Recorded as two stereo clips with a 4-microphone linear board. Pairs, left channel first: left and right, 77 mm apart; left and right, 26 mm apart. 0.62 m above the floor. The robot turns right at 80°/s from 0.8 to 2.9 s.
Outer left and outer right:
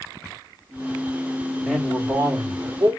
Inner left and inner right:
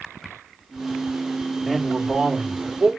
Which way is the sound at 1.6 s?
Straight behind.